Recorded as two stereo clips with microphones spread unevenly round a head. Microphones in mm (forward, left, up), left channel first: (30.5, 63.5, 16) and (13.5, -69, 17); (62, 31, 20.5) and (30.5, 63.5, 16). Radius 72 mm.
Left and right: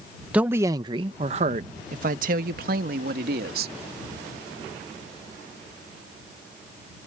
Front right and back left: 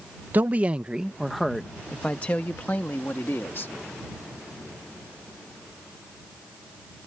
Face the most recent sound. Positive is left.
turn(degrees=-105)